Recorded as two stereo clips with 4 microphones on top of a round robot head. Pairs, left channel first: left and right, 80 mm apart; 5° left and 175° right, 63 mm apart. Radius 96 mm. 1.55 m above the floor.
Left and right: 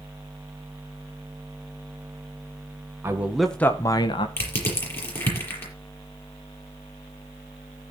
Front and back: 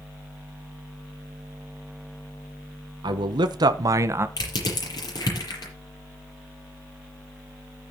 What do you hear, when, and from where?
3.0 s a man speaking: 155° right, 1.1 m; by 4.3 s 130° left, 1.2 m
4.4 s crushing: 25° left, 6.5 m